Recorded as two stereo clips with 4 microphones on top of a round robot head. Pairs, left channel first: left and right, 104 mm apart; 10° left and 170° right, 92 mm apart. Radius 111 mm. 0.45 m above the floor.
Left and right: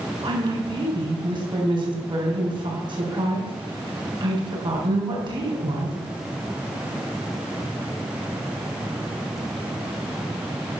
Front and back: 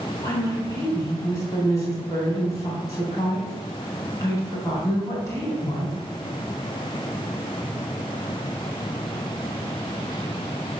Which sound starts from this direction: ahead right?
A woman speaking, at 0.2 s.